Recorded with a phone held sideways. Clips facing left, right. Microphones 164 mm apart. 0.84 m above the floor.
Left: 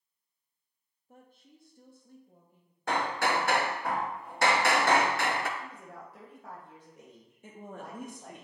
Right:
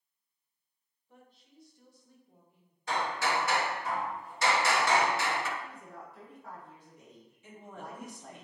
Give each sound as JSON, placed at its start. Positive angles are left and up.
{"t": 1.1, "sound": "a woman speaking", "side_deg": 45, "distance_m": 1.3}
{"t": 2.9, "sound": "hammering", "side_deg": 60, "distance_m": 0.6}
{"t": 5.6, "sound": "a woman speaking", "side_deg": 80, "distance_m": 3.0}
{"t": 7.4, "sound": "a woman speaking", "side_deg": 50, "distance_m": 1.0}